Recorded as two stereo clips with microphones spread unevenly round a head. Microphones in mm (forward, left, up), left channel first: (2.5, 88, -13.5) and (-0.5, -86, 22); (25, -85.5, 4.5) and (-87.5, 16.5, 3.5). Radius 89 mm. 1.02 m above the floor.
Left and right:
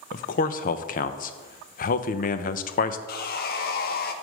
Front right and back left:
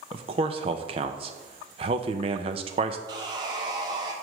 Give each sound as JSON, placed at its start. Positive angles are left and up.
{"t": 0.1, "sound": "a man speaking", "azimuth_deg": 85, "distance_m": 0.5}
{"t": 3.1, "sound": "sawing", "azimuth_deg": 70, "distance_m": 0.7}